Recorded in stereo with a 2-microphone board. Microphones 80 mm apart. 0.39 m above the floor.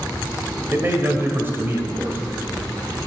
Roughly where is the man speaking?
Right.